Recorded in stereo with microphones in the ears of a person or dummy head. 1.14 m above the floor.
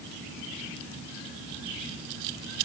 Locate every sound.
Only background noise.